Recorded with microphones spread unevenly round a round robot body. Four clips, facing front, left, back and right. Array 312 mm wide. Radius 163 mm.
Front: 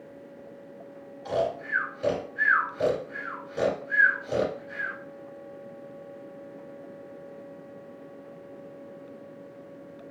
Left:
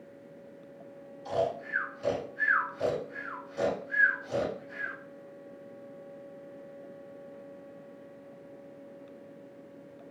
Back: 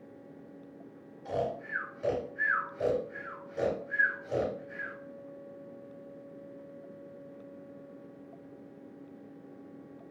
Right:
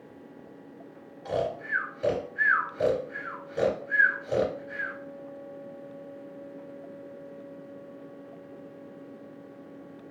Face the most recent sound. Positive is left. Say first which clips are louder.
# right 1 dB, front 5 dB
turn(degrees=-40)